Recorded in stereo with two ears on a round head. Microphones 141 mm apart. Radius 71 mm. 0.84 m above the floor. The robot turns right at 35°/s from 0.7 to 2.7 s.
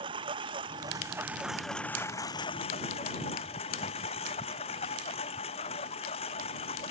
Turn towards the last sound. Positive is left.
turn(degrees=40)